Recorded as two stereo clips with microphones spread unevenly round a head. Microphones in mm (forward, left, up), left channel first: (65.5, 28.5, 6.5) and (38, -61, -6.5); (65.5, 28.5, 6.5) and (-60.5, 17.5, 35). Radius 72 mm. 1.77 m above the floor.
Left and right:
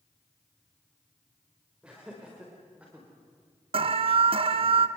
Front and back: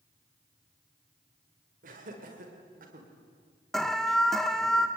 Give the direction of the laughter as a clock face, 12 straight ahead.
6 o'clock.